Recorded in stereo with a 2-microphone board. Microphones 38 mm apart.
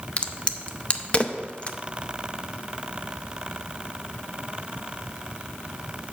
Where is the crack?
30° left (ahead or behind), 0.6 m.